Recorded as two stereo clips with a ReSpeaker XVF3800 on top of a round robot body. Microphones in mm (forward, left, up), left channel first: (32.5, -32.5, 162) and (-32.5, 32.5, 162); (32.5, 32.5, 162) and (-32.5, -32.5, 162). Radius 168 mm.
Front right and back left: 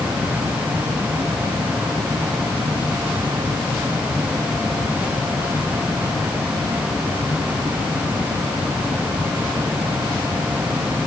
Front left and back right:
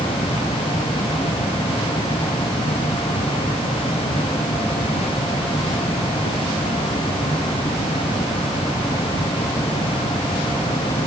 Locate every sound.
Only background noise.